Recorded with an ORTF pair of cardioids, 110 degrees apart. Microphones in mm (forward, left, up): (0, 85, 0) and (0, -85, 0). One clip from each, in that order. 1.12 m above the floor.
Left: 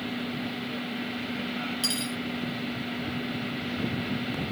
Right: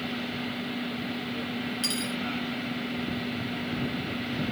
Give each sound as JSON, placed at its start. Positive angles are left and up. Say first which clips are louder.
{"t": 1.8, "sound": "cutlery clinking", "louder": "even", "azimuth_deg": 10}